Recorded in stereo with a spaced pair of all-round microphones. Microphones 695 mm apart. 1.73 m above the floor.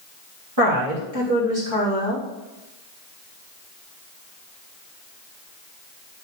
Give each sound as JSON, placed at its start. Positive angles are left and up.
{"t": 0.6, "sound": "a woman speaking", "side_deg": -40, "distance_m": 3.5}